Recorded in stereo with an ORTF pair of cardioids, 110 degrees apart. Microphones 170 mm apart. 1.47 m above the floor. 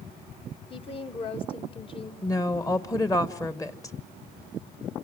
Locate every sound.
0.7 s a woman speaking: 30° left, 1.6 m
2.2 s a woman speaking: 20° left, 1.4 m